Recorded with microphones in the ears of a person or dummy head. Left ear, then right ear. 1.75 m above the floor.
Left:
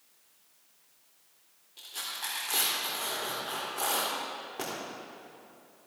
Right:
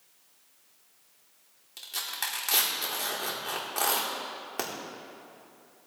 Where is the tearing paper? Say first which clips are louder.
Right 3 dB; 45° right (ahead or behind), 1.2 m.